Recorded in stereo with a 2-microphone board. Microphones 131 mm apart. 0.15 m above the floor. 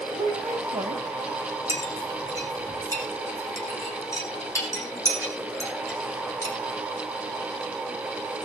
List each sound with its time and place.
0.1 s a woman speaking: 60° right (ahead or behind), 3 m
1.7 s a clink: 25° left (ahead or behind), 5 m